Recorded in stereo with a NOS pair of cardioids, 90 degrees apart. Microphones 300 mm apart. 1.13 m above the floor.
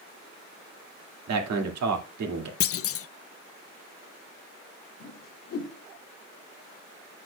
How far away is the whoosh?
About 1.6 m.